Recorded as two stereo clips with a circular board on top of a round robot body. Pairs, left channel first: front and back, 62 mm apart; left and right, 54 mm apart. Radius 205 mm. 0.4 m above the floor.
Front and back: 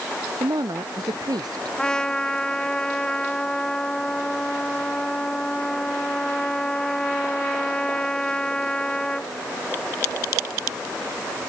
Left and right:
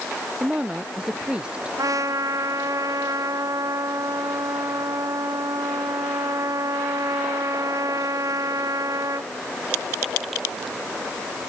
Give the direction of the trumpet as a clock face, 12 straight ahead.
3 o'clock.